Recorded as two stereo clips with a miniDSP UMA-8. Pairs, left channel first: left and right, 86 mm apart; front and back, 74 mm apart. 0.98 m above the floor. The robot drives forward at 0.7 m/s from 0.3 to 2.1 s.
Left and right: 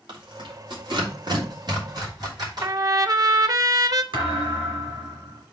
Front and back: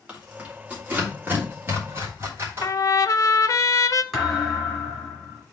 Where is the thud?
90° right, 3 m.